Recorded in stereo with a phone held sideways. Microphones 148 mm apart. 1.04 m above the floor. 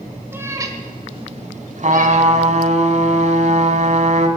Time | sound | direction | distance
0.3 | a cat meowing | 15° right (ahead or behind) | 1.5 m
1.8 | a trumpet | 55° right (ahead or behind) | 1.4 m